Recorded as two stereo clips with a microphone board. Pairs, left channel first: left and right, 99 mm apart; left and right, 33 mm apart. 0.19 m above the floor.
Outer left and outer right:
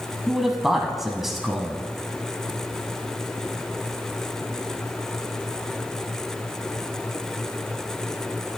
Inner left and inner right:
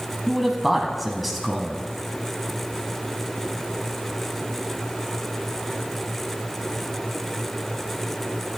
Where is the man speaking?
5° right (ahead or behind), 1.4 m.